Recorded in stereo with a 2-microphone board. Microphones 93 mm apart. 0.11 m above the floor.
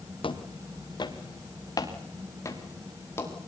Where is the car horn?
I don't hear a car horn.